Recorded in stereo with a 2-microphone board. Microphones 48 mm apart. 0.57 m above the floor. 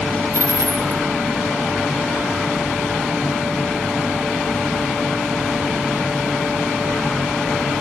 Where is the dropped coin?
70° right (ahead or behind), 3 m.